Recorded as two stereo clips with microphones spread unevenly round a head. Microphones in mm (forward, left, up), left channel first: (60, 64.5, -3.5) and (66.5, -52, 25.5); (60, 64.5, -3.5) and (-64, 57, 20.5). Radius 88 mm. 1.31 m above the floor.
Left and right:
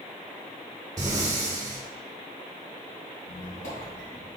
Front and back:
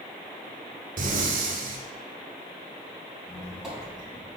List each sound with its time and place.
1.0 s breathing: 160° right, 0.9 m
3.2 s a squeak: 100° left, 2.5 m